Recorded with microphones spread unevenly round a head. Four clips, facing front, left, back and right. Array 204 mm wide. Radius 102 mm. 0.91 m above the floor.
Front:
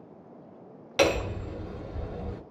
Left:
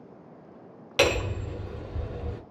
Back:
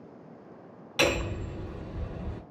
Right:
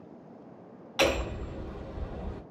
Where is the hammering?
45° left, 1.4 m.